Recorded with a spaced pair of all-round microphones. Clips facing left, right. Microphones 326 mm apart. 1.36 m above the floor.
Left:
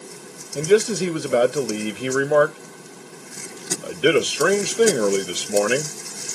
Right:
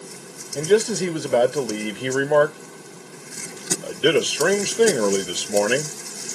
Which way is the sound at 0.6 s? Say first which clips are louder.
Left 1 dB; 5° left (ahead or behind).